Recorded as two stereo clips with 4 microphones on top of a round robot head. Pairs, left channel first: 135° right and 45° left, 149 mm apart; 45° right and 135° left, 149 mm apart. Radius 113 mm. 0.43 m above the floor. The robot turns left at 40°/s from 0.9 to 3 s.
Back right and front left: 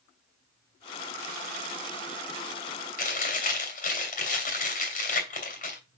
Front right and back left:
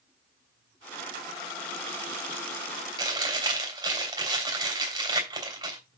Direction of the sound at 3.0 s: 160° right.